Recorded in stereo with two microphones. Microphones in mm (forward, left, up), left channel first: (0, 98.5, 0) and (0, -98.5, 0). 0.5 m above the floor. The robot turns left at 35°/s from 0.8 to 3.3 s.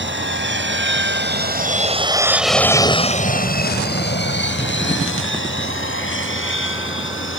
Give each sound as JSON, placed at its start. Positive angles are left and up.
{"t": 0.0, "sound": "an aircraft", "side_deg": -65}